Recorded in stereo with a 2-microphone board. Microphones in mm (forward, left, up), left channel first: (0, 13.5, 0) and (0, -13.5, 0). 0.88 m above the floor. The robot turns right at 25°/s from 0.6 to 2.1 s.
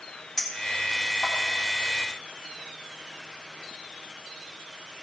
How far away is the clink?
About 4.5 m.